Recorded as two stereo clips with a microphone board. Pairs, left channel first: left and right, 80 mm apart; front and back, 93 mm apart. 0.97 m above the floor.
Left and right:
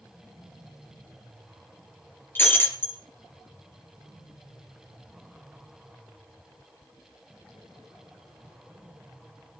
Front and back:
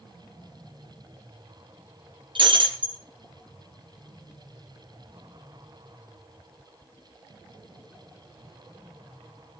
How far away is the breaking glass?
About 4 m.